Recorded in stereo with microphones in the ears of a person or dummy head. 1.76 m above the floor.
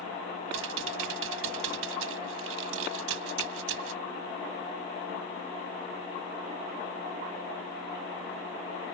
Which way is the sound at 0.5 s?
85° right.